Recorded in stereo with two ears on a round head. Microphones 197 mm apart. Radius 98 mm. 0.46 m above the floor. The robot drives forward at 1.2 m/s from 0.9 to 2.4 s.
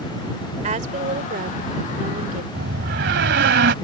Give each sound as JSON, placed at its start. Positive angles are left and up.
{"t": 0.6, "sound": "a woman speaking", "side_deg": -35}
{"t": 2.5, "sound": "a door slam", "side_deg": -50}